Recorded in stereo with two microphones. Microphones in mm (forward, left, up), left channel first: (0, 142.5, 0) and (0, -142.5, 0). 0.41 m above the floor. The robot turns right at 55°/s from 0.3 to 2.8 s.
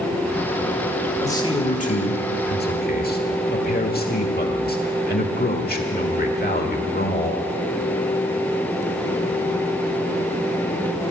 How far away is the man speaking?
About 1.4 m.